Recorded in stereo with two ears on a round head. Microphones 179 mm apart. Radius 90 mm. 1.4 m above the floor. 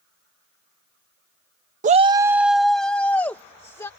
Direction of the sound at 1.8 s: 40° right (ahead or behind).